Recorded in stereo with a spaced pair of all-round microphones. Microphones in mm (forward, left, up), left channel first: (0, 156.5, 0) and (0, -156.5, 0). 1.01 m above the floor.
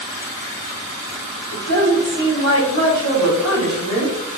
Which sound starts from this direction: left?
A woman speaking, at 1.5 s.